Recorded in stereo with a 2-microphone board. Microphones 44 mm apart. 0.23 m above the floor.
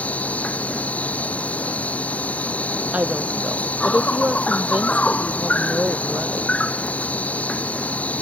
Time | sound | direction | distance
0.0 | an insect | 30° left (ahead or behind) | ?
2.9 | a woman speaking | 30° right (ahead or behind) | ?